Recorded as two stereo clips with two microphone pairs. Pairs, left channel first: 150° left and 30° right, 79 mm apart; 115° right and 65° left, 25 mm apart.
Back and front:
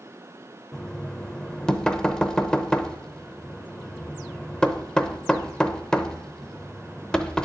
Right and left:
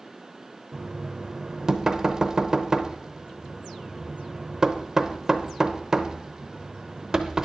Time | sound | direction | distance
0.7 | knocking | 85° left | 0.7 m